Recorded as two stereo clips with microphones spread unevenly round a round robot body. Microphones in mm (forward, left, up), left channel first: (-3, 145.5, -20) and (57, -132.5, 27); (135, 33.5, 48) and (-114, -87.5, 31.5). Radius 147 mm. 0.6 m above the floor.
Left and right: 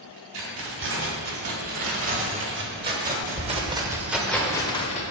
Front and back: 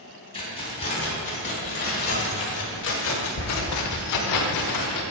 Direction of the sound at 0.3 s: 45° right.